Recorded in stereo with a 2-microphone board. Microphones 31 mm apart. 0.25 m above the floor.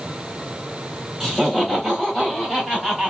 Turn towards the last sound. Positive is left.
turn(degrees=0)  # may be behind; listen again after turning